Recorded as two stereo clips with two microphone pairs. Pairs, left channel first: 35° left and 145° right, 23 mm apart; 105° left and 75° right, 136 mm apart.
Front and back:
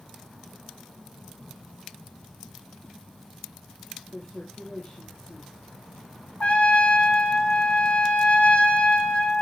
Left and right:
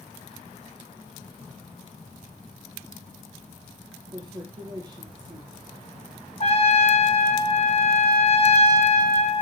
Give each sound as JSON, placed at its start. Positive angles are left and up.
{"t": 4.1, "sound": "a woman speaking", "azimuth_deg": -20, "distance_m": 3.5}
{"t": 6.4, "sound": "a trumpet", "azimuth_deg": 60, "distance_m": 2.0}